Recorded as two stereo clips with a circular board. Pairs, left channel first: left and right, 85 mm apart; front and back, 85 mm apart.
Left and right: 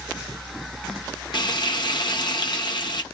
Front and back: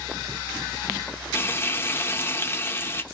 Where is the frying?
60° left, 0.5 m.